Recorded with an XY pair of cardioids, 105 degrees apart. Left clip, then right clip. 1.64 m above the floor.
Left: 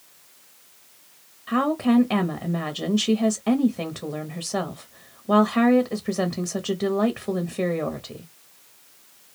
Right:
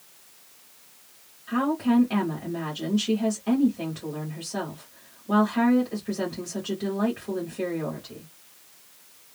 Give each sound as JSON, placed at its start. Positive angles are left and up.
{"t": 1.5, "sound": "a woman speaking", "azimuth_deg": 65, "distance_m": 0.7}